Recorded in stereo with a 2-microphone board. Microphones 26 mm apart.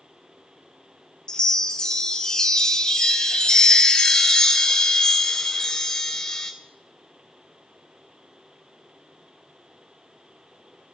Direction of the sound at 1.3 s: 25° left (ahead or behind).